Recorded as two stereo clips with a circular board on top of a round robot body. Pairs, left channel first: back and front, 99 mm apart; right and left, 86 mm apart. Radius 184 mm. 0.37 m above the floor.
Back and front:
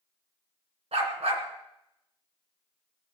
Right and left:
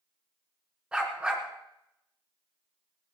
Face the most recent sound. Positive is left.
turn(degrees=10)